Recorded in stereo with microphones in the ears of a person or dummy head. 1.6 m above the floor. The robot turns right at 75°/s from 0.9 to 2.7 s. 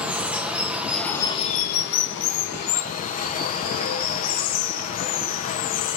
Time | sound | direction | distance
0.0 | running water | 5° right | 0.9 m